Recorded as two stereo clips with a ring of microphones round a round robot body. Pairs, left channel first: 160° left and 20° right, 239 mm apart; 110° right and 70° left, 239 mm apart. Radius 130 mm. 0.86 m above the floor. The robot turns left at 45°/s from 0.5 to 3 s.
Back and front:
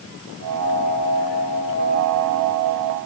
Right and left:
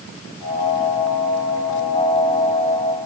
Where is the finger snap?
No finger snap in this recording.